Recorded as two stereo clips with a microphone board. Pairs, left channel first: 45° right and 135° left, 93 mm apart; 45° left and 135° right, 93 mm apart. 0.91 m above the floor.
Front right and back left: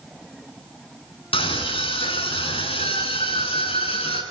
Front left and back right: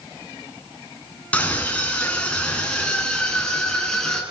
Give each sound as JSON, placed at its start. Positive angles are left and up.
{"t": 1.3, "sound": "a scream", "azimuth_deg": -30, "distance_m": 10.0}